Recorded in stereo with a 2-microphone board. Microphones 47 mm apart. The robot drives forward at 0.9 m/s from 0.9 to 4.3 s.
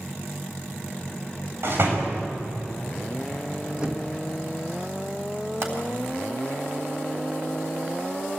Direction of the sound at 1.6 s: 55° right (ahead or behind).